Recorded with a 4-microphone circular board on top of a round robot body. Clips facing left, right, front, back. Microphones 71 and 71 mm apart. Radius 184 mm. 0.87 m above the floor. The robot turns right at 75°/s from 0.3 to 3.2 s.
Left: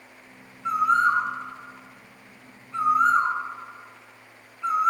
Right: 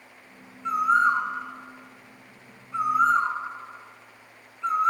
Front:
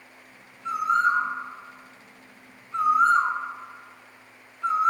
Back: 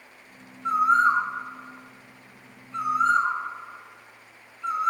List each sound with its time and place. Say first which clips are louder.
0.7 s a bird: even, back 3 dB; straight behind, 1.1 m; by 4.9 s 10° left, 1.1 m